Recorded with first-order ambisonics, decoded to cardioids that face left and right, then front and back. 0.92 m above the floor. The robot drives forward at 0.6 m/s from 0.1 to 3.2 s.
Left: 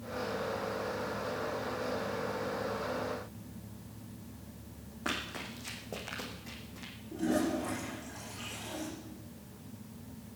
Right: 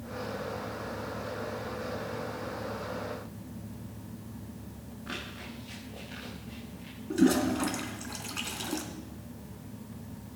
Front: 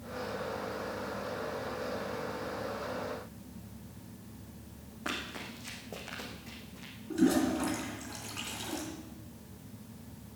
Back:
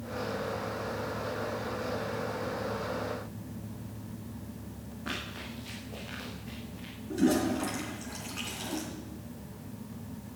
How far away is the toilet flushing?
About 3 m.